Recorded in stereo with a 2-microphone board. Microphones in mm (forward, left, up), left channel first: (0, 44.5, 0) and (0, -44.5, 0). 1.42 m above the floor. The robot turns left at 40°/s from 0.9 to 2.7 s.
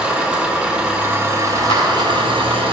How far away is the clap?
About 3 m.